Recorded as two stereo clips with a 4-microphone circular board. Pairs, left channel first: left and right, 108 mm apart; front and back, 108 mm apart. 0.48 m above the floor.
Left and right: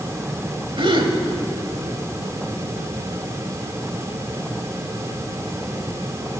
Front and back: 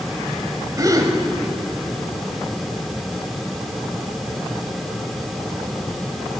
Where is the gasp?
125° right, 1.4 m.